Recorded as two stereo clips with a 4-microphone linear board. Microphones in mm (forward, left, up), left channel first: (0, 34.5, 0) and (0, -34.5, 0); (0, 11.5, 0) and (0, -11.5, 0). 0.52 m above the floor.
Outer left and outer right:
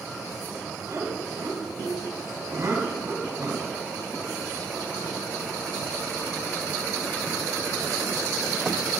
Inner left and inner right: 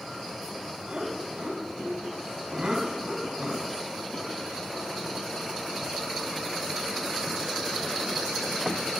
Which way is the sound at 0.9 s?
55° right (ahead or behind).